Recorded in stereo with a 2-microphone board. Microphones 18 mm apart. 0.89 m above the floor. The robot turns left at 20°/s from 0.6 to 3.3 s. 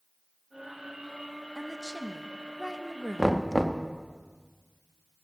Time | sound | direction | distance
1.6 | a woman speaking | straight ahead | 0.5 m
3.2 | knocking | 5° left (ahead or behind) | 0.6 m